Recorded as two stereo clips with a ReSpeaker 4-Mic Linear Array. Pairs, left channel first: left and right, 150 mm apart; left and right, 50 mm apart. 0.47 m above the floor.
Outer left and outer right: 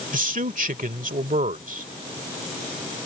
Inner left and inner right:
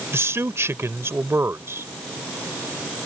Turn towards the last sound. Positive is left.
turn(degrees=-60)  # may be behind; listen again after turning